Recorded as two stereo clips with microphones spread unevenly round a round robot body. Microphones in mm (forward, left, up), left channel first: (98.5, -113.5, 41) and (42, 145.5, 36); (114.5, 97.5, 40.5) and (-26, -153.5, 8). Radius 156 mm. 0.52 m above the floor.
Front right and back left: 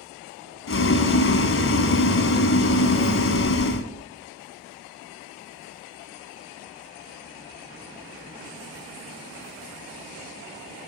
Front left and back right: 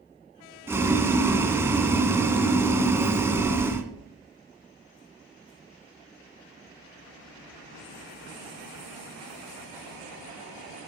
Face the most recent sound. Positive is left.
turn(degrees=-35)